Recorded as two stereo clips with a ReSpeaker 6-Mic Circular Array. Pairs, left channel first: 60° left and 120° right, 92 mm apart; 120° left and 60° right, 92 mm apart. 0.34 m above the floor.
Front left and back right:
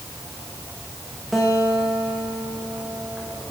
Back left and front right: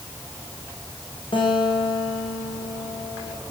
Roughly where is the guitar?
Behind left.